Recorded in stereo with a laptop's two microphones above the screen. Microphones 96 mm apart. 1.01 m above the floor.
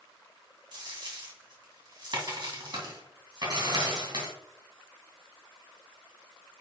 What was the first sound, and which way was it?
A dropped coin, 50° right (ahead or behind).